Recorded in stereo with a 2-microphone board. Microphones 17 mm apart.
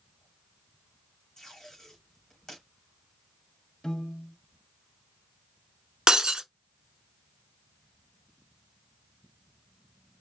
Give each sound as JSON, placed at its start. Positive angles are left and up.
{"t": 1.4, "sound": "tape being pulled", "side_deg": 30, "distance_m": 3.0}
{"t": 3.8, "sound": "a piano", "side_deg": 50, "distance_m": 1.3}
{"t": 6.1, "sound": "breaking glass", "side_deg": -40, "distance_m": 0.7}